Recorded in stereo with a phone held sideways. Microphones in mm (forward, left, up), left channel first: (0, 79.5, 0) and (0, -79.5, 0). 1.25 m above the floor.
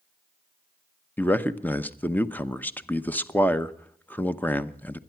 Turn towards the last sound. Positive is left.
turn(degrees=10)  # may be behind; listen again after turning